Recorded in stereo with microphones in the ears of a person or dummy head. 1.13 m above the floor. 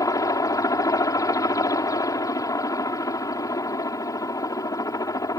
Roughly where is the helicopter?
Centre.